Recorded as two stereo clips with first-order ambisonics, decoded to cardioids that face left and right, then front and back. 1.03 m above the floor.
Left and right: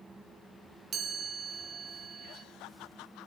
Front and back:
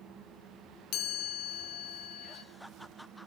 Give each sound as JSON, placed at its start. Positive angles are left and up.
{"t": 0.9, "sound": "a chime", "azimuth_deg": -25, "distance_m": 1.3}